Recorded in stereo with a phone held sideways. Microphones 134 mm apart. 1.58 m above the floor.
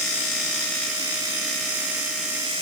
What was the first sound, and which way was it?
Only background noise.